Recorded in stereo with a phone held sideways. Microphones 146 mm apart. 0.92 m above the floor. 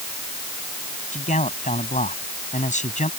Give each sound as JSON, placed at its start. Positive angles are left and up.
{"t": 1.1, "sound": "a man speaking", "side_deg": 60}